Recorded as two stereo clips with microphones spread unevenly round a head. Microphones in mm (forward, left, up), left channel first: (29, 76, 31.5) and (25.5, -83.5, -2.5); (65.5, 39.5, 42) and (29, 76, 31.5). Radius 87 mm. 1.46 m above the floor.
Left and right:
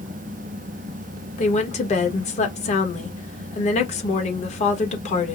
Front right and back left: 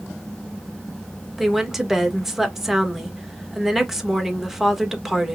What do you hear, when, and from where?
1.4 s a woman speaking: 50° left, 1.2 m